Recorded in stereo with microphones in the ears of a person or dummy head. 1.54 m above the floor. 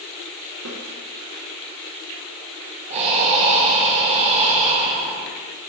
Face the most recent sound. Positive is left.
turn(degrees=-35)  # may be behind; listen again after turning